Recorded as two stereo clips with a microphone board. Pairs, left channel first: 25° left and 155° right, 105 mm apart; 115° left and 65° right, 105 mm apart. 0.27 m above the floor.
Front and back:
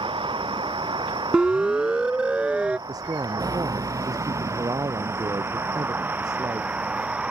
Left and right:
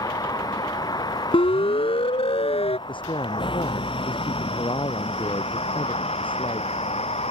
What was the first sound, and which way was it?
A vehicle, 165° left.